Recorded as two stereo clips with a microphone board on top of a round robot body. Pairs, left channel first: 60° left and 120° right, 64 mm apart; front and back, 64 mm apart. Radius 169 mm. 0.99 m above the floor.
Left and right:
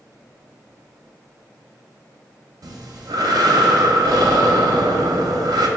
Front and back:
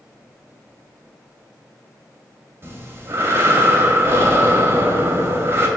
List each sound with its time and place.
2.6 s breathing: 125° right, 0.8 m